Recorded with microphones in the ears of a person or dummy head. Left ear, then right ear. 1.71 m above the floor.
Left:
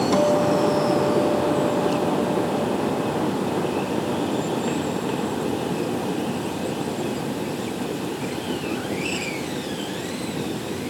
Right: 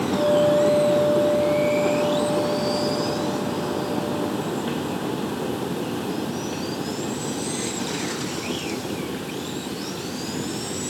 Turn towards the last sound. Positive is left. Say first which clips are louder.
# right 2 dB
turn(degrees=55)  # may be behind; listen again after turning